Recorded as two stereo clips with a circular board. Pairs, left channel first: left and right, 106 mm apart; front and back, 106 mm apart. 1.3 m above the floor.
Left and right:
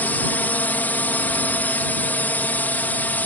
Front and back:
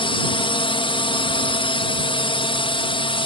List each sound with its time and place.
0.0 s a drone: 20° left